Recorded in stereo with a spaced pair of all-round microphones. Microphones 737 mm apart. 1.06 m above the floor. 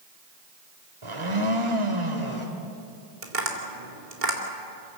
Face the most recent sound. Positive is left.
turn(degrees=-85)